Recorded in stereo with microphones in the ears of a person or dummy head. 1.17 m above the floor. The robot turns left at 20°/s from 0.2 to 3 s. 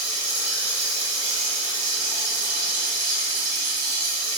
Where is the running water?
5° right, 1.3 m; by 4.4 s 60° right, 1.3 m.